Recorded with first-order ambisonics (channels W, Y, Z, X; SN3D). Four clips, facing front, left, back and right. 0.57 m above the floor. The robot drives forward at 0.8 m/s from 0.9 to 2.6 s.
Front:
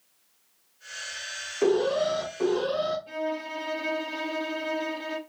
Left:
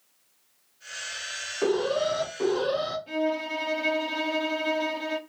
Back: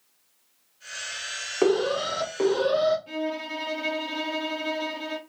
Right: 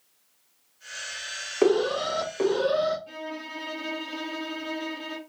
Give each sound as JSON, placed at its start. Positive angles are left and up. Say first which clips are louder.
{"t": 1.6, "sound": "an alarm", "louder": "right 3 dB, even", "azimuth_deg": -130, "distance_m": 1.5}
{"t": 3.1, "sound": "a violin", "louder": "left 9 dB, back 1 dB", "azimuth_deg": 140, "distance_m": 1.0}